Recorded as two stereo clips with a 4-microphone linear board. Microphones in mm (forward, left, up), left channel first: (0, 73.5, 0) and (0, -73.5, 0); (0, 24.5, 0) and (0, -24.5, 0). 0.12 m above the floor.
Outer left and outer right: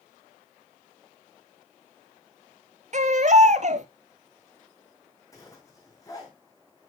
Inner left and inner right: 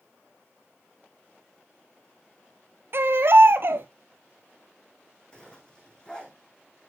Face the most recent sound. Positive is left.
turn(degrees=25)  # may be behind; listen again after turning